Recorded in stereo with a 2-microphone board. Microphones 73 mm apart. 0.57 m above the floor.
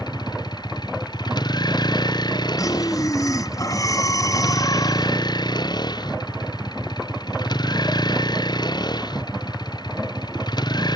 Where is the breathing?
55° left (ahead or behind).